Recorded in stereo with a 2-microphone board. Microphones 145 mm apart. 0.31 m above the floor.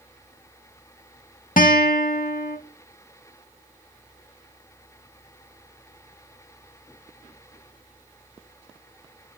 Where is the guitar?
70° left (ahead or behind), 0.6 m.